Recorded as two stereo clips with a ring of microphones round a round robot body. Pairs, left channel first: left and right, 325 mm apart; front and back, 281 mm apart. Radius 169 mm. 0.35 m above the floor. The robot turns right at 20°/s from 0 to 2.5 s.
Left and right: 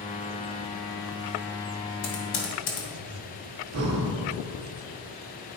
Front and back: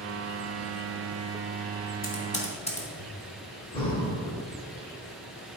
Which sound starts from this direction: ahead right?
Breathing, at 3.7 s.